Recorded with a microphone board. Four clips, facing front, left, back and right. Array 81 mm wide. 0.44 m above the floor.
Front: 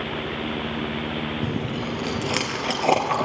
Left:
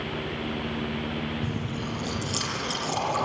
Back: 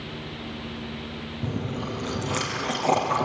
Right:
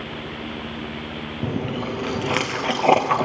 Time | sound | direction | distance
1.4 | chewing | 75° right | 2.5 m